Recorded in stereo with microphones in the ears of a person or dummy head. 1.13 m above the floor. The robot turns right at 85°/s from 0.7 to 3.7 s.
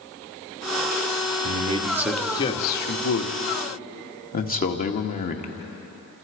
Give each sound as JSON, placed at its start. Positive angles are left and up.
{"t": 1.4, "sound": "a man speaking", "azimuth_deg": -55, "distance_m": 1.8}